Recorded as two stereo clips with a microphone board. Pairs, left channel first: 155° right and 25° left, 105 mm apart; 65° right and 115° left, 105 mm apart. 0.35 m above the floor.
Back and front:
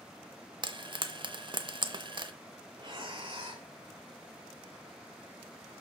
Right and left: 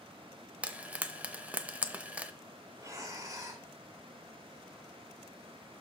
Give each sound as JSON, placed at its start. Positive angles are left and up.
{"t": 0.6, "sound": "frying", "azimuth_deg": 40, "distance_m": 0.6}
{"t": 2.8, "sound": "breathing", "azimuth_deg": 55, "distance_m": 1.2}